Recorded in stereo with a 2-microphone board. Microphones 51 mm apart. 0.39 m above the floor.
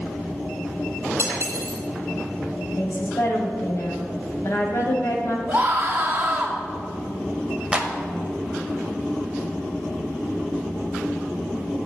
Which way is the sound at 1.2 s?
50° right (ahead or behind).